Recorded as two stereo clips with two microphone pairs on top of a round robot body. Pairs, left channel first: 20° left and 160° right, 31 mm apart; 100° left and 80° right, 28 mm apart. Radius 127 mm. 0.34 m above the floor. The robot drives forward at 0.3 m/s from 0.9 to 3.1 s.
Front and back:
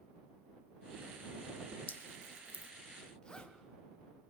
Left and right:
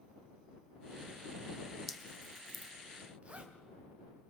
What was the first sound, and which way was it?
Dripping, 5° left.